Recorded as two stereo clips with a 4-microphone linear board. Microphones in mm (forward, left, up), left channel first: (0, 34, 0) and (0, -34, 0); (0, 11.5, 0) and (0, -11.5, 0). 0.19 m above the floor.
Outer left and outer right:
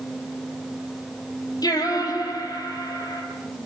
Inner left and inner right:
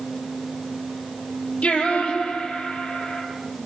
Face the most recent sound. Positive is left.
turn(degrees=75)  # may be behind; listen again after turning